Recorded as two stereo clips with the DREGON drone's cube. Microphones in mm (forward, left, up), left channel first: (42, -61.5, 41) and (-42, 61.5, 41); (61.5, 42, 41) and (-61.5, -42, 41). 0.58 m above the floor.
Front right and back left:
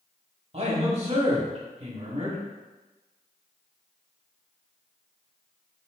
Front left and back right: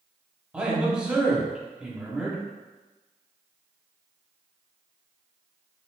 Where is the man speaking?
135° left, 1.6 m.